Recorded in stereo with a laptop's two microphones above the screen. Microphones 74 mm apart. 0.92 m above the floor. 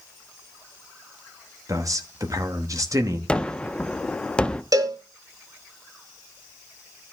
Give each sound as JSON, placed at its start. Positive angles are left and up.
{"t": 1.7, "sound": "a man speaking", "side_deg": -45, "distance_m": 1.1}
{"t": 3.3, "sound": "a gunshot", "side_deg": 15, "distance_m": 0.6}
{"t": 4.7, "sound": "a cowbell", "side_deg": -50, "distance_m": 0.8}